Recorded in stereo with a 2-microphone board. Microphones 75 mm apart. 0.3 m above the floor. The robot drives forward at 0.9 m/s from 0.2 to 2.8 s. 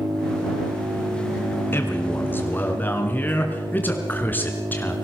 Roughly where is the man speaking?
Left.